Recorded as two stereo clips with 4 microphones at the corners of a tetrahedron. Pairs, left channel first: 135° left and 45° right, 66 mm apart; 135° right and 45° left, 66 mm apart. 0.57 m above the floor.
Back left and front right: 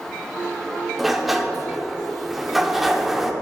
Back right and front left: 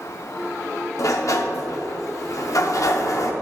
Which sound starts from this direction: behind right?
A sliding door, at 1.0 s.